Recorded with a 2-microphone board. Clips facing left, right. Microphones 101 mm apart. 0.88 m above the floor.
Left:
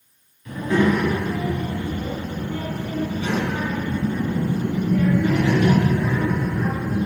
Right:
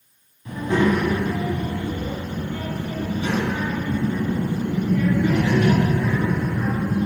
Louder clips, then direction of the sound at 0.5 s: Left 1 dB; 30° right (ahead or behind).